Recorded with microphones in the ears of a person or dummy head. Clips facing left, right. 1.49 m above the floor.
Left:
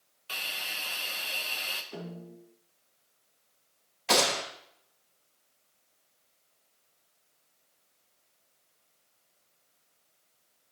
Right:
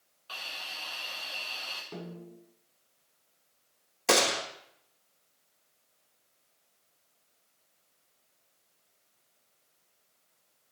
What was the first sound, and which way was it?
A hiss, 30° left (ahead or behind).